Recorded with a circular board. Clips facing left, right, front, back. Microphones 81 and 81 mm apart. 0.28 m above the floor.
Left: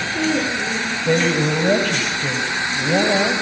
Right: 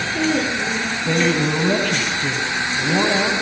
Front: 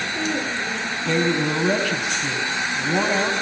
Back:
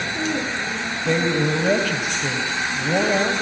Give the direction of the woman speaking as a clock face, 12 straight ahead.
7 o'clock.